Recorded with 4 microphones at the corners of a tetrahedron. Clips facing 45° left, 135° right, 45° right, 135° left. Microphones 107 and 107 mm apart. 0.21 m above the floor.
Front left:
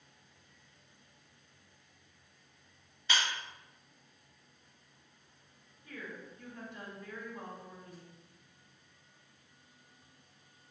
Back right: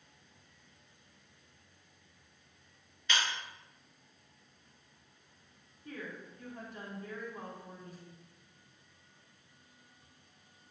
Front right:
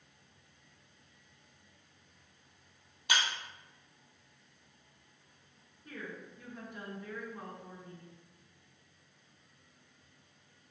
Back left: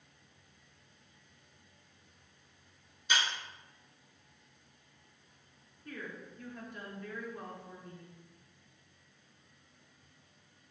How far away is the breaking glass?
About 1.8 m.